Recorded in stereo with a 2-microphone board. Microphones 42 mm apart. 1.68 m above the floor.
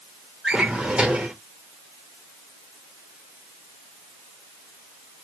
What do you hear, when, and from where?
0.4 s a drawer: 20° right (ahead or behind), 1.0 m